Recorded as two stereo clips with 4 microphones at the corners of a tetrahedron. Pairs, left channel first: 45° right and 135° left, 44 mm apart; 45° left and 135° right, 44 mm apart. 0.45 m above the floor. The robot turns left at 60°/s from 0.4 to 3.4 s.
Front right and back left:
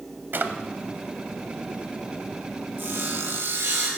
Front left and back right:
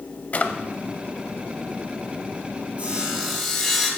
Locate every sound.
0.3 s a drawer: 100° left, 0.7 m; by 0.5 s 90° left, 0.7 m
2.8 s sawing: 170° left, 2 m; by 3.9 s 135° left, 2 m